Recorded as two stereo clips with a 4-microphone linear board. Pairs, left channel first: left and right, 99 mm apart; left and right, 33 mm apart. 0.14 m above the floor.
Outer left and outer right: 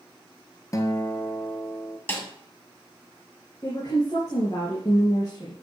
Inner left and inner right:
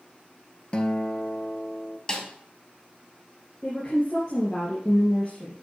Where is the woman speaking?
40° left (ahead or behind), 3.5 m.